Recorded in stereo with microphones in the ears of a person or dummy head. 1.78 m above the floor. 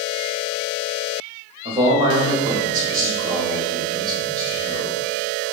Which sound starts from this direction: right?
A man speaking, at 1.6 s.